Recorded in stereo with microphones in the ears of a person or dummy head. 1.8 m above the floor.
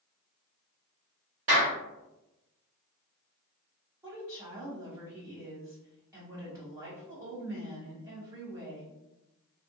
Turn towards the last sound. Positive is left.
turn(degrees=-20)  # may be behind; listen again after turning